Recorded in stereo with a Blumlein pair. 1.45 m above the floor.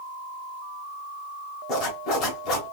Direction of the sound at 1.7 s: 35° left.